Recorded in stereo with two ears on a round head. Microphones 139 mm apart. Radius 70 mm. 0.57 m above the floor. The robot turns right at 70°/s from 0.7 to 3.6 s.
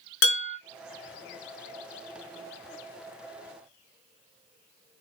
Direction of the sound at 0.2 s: 85° left.